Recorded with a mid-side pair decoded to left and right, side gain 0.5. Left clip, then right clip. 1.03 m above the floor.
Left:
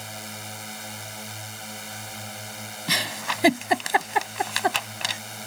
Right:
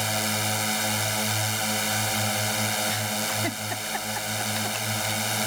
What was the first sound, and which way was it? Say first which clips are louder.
A drone: right 11 dB; 60° right.